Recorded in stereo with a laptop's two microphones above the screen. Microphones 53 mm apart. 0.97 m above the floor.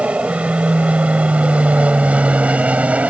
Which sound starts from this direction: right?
An aircraft, at 0.0 s.